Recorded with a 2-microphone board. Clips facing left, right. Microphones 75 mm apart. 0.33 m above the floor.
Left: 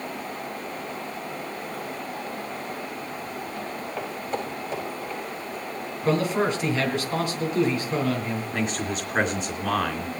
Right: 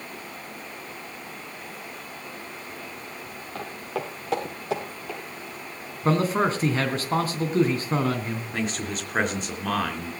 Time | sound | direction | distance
3.5 | footsteps | 75° right (ahead or behind) | 6 m
6.0 | a man speaking | 35° right (ahead or behind) | 3.5 m
8.5 | a man speaking | centre (ahead or behind) | 3.5 m